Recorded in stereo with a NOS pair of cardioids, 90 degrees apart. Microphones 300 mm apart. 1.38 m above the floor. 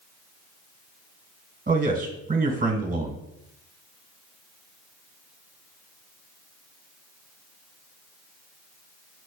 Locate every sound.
1.7 s a man speaking: 30° right, 1.1 m